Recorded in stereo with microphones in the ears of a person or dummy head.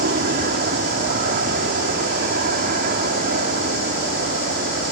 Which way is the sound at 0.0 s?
50° right (ahead or behind).